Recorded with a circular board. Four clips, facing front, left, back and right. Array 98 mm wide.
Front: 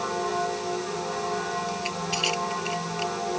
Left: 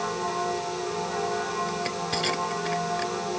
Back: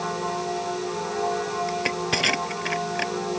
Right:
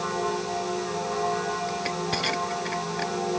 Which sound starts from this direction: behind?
Crushing, at 1.7 s.